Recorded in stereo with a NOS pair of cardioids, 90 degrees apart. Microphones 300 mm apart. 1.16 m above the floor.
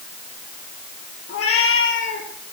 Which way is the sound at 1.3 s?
55° left.